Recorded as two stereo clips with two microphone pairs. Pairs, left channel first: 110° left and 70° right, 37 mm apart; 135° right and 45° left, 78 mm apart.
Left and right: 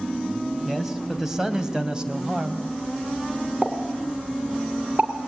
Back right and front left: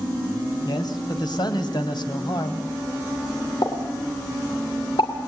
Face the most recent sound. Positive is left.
turn(degrees=-125)